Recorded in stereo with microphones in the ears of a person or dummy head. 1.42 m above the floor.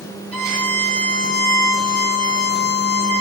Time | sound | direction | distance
0.3 | a violin | centre (ahead or behind) | 1.6 m